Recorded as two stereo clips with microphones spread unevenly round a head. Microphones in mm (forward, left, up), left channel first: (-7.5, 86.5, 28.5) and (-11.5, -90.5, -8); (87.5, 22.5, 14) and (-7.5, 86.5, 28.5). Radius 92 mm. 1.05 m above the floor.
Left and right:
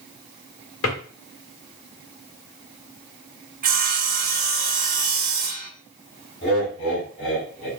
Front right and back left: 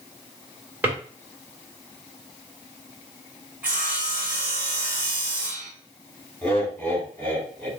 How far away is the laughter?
About 3 m.